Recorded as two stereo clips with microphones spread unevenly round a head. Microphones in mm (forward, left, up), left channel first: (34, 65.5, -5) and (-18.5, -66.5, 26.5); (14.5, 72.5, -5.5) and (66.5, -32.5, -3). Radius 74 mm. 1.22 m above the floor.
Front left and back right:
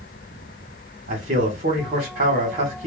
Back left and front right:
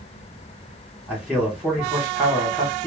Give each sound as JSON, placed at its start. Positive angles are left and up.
{"t": 1.1, "sound": "a man speaking", "azimuth_deg": -145, "distance_m": 1.7}